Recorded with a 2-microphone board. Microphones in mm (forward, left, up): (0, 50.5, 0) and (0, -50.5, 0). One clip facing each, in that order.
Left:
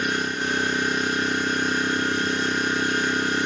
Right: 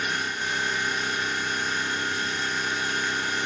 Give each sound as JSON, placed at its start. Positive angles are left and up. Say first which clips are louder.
{"t": 0.0, "sound": "an engine running", "louder": "left 4 dB", "side_deg": 55, "distance_m": 1.6}